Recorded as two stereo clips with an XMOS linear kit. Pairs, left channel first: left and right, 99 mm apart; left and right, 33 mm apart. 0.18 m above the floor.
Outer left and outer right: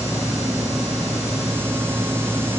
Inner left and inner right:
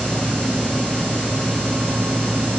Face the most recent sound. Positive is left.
No sound to turn to.